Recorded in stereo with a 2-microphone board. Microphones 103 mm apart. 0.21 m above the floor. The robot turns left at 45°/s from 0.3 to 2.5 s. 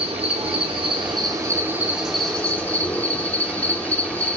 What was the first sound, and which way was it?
An insect, 95° right.